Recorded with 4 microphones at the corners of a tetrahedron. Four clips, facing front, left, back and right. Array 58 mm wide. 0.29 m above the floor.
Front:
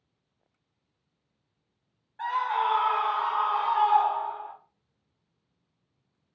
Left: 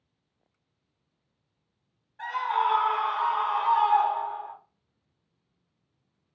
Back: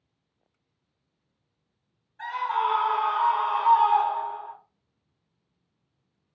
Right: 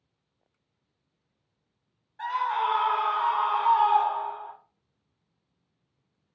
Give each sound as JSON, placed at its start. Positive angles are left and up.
{"t": 2.2, "sound": "a scream", "azimuth_deg": 0, "distance_m": 1.7}